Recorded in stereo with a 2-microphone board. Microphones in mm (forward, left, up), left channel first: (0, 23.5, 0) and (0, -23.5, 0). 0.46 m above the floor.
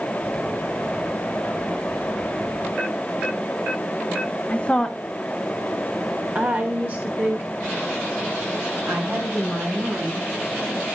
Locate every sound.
4.5 s a woman speaking: 30° left (ahead or behind), 0.9 m; by 10.9 s 60° right (ahead or behind), 4 m